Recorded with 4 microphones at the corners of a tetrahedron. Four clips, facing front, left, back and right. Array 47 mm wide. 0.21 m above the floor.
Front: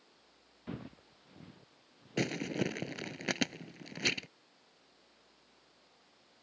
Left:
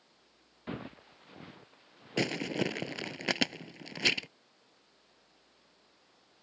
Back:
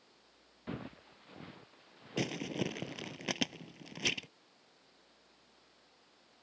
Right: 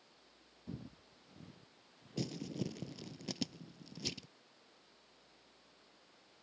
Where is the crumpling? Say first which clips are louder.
Left 10 dB, front 2 dB; 80° left.